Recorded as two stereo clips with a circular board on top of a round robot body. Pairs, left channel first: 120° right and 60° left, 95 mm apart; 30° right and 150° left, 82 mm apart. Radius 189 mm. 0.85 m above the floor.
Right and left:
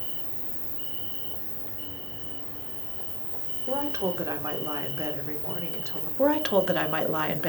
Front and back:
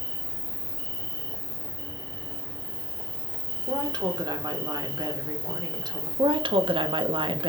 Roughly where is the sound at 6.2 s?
Behind left.